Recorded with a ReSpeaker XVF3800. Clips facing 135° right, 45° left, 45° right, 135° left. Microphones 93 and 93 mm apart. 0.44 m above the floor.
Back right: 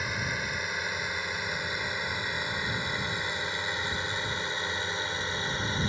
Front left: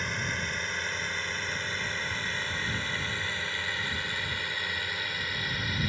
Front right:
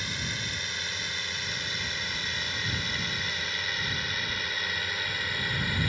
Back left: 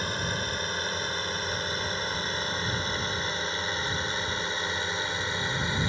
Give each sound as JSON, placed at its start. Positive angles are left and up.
{"t": 0.0, "sound": "a drone", "azimuth_deg": 145}